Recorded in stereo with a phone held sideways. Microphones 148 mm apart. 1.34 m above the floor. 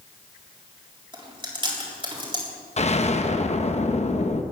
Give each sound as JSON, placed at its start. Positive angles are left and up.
{"t": 1.1, "sound": "chewing", "side_deg": -35, "distance_m": 3.5}
{"t": 2.8, "sound": "an explosion", "side_deg": 45, "distance_m": 0.9}